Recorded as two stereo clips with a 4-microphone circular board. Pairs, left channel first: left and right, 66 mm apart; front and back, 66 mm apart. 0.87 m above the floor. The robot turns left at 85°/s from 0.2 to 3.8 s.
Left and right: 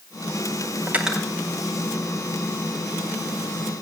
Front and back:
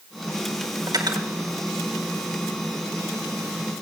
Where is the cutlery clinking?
150° right, 1.6 m; by 1.3 s 175° left, 1.6 m.